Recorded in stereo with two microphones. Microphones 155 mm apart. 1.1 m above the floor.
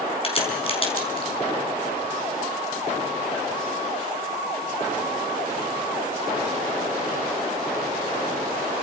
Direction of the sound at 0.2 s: 40° left (ahead or behind).